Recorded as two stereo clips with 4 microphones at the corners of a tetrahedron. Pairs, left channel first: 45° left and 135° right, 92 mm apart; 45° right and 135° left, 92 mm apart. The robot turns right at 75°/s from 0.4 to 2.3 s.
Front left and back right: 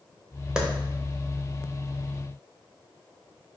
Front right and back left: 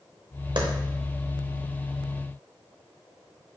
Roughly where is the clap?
Behind left.